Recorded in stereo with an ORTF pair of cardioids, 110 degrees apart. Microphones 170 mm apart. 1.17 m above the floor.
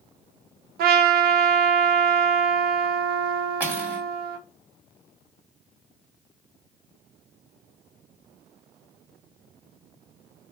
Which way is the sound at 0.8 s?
65° right.